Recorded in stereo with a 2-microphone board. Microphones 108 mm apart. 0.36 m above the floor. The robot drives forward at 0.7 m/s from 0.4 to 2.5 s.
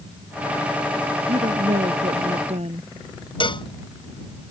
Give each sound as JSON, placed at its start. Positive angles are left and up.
{"t": 1.3, "sound": "a woman speaking", "side_deg": -80}
{"t": 3.4, "sound": "a cowbell", "side_deg": 50}